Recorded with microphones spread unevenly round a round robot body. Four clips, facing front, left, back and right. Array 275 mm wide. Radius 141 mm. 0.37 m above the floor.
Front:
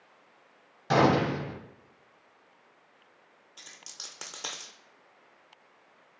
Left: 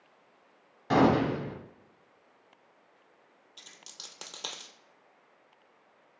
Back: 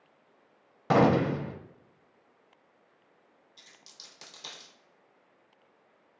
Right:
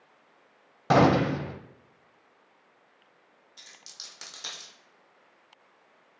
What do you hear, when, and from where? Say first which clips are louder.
0.9 s a gunshot: right 3 dB, even; 110° right, 0.6 m
3.6 s a dropped coin: left 1 dB, front 8 dB; 40° left, 0.8 m